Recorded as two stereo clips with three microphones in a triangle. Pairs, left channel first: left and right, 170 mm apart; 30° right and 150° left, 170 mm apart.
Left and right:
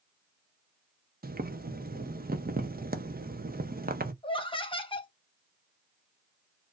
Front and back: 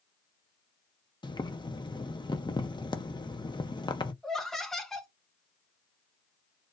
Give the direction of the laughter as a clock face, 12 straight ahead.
10 o'clock.